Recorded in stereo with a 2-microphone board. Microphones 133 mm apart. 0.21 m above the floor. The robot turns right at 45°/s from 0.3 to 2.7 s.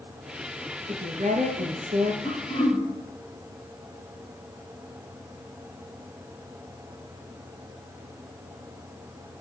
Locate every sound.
0.9 s a woman speaking: 115° right, 3.5 m; by 2.1 s 60° right, 3.5 m
2.2 s throat clearing: 15° left (ahead or behind), 5.5 m; by 2.9 s 35° left (ahead or behind), 5.5 m